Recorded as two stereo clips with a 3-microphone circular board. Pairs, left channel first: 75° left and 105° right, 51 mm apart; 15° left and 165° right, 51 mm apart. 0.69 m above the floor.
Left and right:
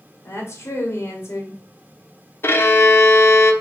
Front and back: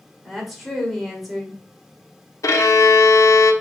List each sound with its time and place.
0.2 s a woman speaking: 110° left, 2.0 m
2.4 s a violin: 35° left, 0.7 m